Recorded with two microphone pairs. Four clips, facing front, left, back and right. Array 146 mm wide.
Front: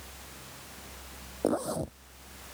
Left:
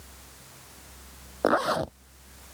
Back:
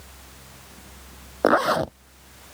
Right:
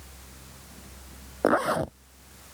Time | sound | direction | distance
1.4 | a zipper | 175° left | ?